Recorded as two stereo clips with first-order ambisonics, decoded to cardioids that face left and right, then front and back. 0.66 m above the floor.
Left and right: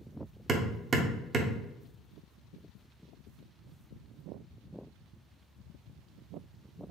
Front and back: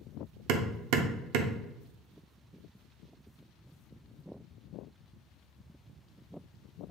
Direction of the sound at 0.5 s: 155° right.